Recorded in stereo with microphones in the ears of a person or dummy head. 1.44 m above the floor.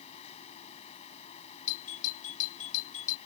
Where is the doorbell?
45° left (ahead or behind).